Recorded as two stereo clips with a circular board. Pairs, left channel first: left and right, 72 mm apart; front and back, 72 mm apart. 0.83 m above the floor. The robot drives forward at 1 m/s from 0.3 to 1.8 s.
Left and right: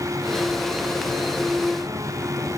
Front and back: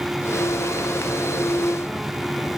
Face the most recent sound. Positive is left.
No sound to turn to.